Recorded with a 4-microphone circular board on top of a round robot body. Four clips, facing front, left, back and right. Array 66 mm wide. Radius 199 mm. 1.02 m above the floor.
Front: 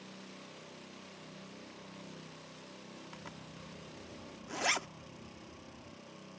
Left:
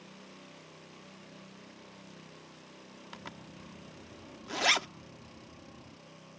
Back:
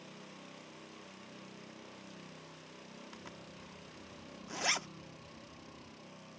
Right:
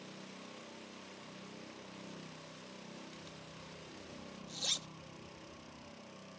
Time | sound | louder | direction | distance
3.1 | a zipper | left 4 dB, front 1 dB | 80° left | ?